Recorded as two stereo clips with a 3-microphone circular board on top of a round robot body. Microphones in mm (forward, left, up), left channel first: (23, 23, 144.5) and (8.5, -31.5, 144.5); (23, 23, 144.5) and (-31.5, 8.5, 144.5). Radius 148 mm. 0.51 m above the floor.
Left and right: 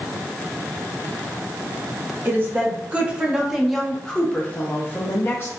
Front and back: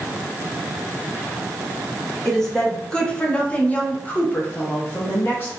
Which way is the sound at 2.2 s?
65° right.